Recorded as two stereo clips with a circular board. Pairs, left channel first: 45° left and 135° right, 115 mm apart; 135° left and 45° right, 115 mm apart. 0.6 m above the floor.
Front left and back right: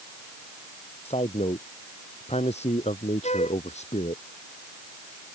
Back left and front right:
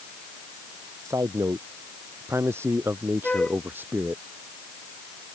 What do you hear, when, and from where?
1.1 s a man speaking: 20° left; by 4.2 s 30° left
3.2 s a flute: 55° left